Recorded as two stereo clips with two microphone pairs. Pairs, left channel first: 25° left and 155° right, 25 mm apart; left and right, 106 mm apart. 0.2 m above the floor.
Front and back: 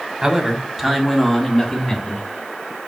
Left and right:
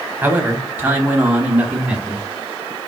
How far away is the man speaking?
About 1.0 m.